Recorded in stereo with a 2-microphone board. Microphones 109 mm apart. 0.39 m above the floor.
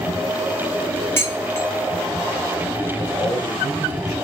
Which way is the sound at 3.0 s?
35° right (ahead or behind).